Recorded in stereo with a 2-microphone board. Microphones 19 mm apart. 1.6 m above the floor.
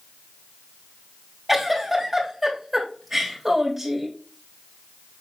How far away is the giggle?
About 3.5 m.